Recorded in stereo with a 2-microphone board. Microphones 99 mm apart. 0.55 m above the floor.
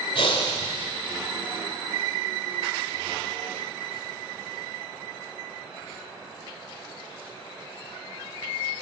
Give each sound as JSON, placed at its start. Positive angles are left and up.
{"t": 0.1, "sound": "breathing", "side_deg": 65, "distance_m": 1.9}